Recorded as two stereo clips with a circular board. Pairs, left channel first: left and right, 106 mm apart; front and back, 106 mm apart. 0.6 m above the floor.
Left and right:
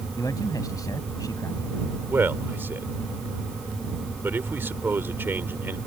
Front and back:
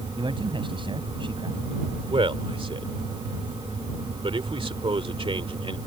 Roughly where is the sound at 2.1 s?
Behind.